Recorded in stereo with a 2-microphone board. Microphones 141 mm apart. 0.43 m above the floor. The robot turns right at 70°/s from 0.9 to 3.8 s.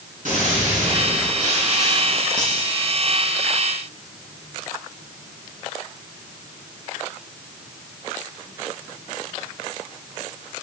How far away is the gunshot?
About 5 m.